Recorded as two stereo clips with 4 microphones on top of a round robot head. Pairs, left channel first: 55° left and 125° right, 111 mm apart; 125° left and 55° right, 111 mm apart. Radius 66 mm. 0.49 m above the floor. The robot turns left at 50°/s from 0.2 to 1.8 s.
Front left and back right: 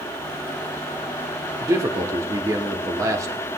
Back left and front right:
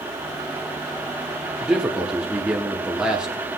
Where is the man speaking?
120° right, 1.1 m; by 3.5 s 130° right, 1.1 m.